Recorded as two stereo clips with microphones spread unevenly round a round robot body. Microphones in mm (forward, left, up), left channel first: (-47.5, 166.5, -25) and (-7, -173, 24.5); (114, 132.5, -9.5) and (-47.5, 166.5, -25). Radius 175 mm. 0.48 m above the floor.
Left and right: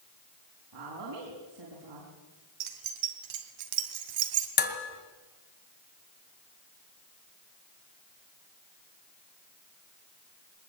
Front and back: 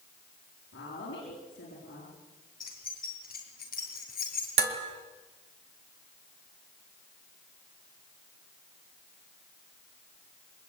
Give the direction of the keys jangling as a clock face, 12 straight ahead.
3 o'clock.